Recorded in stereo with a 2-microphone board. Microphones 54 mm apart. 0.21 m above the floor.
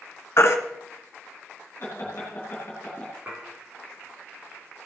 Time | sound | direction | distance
0.4 | a baby crying | 55° left (ahead or behind) | 1.4 m
1.8 | laughter | 45° left (ahead or behind) | 3 m
3.3 | dishes clattering | 35° right (ahead or behind) | 6 m